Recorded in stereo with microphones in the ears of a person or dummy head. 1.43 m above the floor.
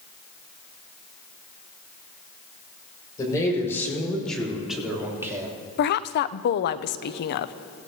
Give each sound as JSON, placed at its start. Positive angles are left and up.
{"t": 3.2, "sound": "a man speaking", "side_deg": 20, "distance_m": 5.0}
{"t": 5.8, "sound": "a woman speaking", "side_deg": 50, "distance_m": 0.5}